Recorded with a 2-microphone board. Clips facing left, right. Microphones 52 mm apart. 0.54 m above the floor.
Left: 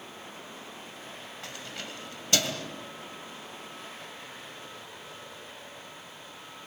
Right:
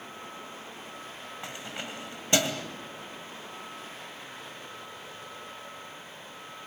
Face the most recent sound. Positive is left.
turn(degrees=-25)  # may be behind; listen again after turning